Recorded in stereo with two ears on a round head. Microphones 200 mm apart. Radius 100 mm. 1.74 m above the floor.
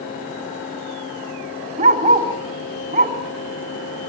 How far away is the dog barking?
About 3.5 m.